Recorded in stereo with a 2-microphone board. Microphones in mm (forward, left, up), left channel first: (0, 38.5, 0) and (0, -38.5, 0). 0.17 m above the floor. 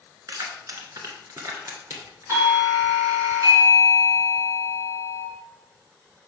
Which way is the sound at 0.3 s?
55° right (ahead or behind).